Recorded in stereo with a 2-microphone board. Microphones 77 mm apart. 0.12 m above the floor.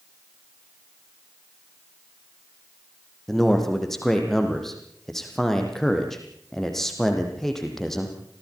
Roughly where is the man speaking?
Centre.